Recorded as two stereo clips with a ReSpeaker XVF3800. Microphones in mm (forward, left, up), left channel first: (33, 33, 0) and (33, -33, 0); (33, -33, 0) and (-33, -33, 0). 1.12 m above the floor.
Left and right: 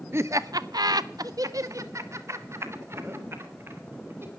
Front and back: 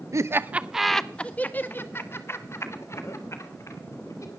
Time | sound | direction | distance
0.1 | laughter | 140° right | 1.0 m